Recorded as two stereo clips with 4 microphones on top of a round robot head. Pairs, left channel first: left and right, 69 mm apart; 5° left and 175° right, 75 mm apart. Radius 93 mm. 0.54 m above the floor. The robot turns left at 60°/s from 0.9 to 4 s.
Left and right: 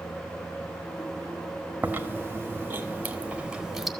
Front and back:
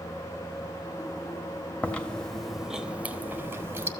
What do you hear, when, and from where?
1.8 s chewing: 50° right, 1.3 m; by 3.9 s 175° right, 1.3 m